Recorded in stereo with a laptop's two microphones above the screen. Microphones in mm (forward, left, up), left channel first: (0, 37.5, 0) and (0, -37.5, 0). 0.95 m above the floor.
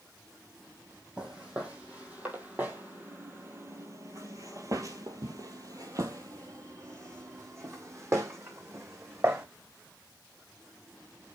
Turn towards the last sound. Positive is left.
turn(degrees=-35)  # may be behind; listen again after turning